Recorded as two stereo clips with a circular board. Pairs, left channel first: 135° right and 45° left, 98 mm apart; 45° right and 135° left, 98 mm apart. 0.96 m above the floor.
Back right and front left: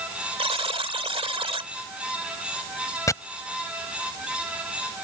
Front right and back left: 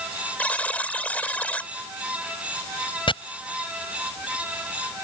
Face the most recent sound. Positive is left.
turn(degrees=-75)